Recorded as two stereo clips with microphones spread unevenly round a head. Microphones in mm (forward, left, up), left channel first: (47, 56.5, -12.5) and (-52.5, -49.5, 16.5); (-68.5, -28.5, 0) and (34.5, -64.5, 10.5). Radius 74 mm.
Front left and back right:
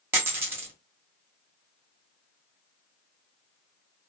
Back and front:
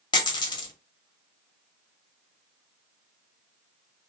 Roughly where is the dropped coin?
Behind.